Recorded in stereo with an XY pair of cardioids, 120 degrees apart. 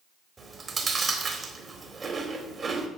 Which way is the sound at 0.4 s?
25° right.